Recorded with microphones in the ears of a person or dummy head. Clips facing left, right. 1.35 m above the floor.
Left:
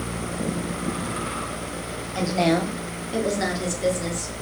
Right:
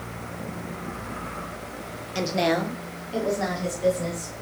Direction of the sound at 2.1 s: 30° right (ahead or behind).